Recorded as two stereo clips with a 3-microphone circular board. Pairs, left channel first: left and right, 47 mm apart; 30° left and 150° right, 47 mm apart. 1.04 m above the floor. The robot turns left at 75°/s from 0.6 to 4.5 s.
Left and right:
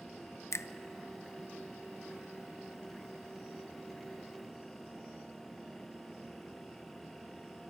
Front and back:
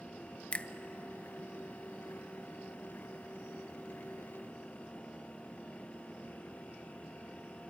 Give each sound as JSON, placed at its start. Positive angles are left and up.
{"t": 0.5, "sound": "a finger snap", "azimuth_deg": 95, "distance_m": 0.6}